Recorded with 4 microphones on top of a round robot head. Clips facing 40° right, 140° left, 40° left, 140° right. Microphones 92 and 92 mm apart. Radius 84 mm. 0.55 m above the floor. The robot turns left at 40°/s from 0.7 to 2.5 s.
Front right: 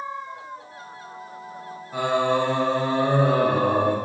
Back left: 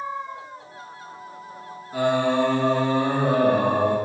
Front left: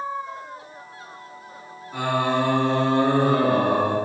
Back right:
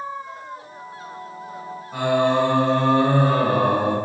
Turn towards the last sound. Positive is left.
turn(degrees=-125)